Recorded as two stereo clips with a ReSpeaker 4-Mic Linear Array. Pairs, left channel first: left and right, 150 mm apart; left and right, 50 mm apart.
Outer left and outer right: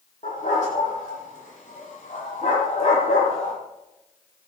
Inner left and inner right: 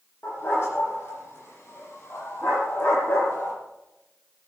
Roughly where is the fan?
I don't hear a fan.